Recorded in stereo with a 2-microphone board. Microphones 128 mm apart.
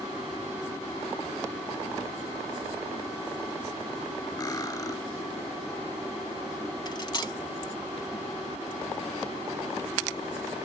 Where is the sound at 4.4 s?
30° left (ahead or behind).